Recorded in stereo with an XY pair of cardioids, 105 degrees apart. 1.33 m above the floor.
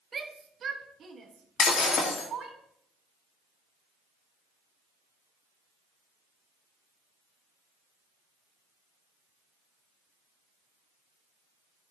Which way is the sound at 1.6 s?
65° left.